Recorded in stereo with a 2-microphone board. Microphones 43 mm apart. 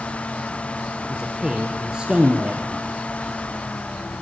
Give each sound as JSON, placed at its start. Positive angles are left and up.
{"t": 1.0, "sound": "a man speaking", "side_deg": -20, "distance_m": 2.0}